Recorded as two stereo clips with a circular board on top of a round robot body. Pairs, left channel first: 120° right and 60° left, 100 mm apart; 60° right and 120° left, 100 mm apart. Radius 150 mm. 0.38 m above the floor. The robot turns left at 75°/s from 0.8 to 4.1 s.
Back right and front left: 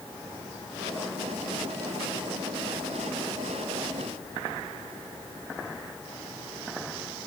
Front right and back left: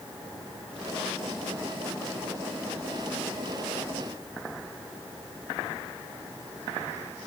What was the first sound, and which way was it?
Only background noise.